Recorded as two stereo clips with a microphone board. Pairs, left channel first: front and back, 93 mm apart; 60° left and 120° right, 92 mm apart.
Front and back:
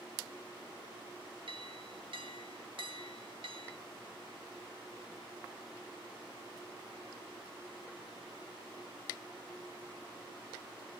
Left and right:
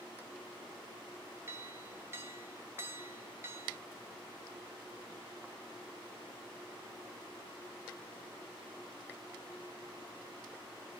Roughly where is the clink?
Behind.